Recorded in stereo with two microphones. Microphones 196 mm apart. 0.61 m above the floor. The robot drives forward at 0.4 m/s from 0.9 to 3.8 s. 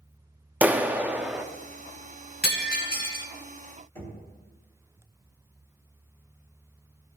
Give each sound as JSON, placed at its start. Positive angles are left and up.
{"t": 0.6, "sound": "a clap", "side_deg": -10, "distance_m": 0.5}
{"t": 2.4, "sound": "breaking glass", "side_deg": 60, "distance_m": 1.7}
{"t": 4.0, "sound": "knocking", "side_deg": 15, "distance_m": 3.0}